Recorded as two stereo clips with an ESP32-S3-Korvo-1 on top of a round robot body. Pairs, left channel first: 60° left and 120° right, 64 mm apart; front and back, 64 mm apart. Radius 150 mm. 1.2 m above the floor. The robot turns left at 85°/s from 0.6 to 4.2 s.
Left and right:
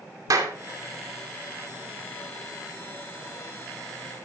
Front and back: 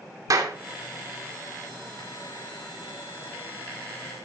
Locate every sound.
0.3 s a clap: 150° right, 2.5 m